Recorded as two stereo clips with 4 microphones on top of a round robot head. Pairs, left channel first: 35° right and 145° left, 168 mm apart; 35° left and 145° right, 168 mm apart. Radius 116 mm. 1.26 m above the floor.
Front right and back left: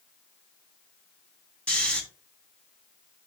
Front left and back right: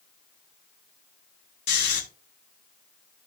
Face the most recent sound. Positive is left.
turn(degrees=45)